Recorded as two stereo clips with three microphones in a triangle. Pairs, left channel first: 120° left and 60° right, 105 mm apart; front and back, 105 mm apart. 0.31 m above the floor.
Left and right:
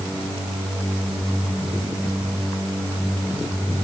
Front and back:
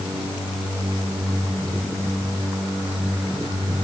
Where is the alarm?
I don't hear an alarm.